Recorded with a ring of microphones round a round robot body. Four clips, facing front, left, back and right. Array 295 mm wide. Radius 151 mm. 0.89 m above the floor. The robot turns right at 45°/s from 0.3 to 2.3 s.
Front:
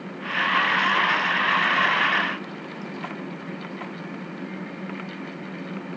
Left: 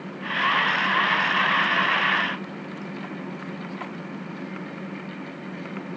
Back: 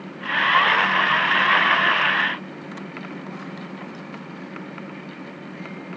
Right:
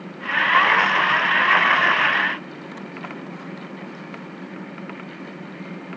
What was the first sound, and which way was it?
Only background noise.